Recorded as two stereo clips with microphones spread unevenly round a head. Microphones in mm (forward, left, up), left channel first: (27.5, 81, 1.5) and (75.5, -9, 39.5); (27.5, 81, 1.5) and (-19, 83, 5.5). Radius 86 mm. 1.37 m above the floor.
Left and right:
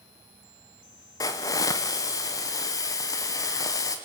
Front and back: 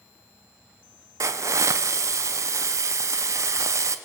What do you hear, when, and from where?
1.2 s a hiss: 170° left, 0.9 m